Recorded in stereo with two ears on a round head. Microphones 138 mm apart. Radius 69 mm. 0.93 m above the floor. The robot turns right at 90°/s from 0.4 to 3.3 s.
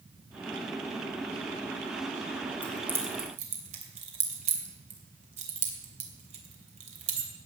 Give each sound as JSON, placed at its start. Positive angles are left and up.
{"t": 2.6, "sound": "keys jangling", "side_deg": 10, "distance_m": 2.5}